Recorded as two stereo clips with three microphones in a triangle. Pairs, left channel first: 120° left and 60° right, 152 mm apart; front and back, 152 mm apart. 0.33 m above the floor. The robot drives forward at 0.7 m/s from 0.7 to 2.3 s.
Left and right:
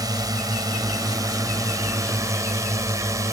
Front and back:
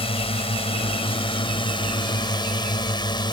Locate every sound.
0.0 s a drone: 10° right; by 3.3 s 15° right